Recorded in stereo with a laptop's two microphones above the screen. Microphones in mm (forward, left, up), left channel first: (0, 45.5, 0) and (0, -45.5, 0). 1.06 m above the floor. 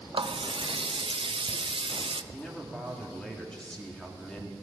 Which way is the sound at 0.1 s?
70° right (ahead or behind).